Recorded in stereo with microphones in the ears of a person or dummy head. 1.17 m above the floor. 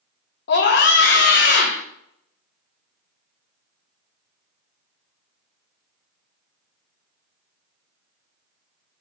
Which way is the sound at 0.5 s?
50° left (ahead or behind).